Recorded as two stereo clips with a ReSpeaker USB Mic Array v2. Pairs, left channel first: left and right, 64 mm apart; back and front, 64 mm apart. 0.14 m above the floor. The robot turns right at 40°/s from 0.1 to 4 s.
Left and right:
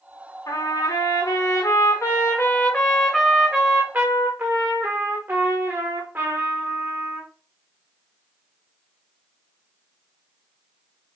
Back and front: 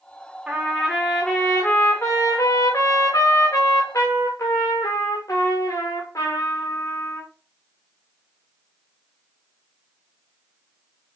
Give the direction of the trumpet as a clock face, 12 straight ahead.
10 o'clock.